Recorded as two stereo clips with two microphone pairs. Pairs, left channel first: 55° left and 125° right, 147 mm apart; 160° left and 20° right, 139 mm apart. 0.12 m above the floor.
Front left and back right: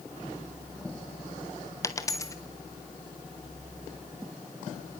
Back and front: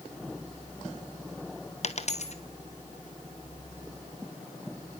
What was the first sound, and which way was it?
A dropped coin, 125° left.